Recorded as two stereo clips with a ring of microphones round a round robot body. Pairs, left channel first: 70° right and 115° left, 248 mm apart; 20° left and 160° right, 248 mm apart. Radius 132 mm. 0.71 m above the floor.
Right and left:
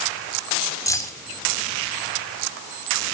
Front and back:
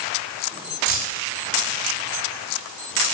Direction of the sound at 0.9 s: 145° right.